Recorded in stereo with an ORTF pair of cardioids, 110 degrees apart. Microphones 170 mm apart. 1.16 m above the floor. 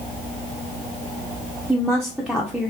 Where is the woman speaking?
Straight ahead, 0.8 m.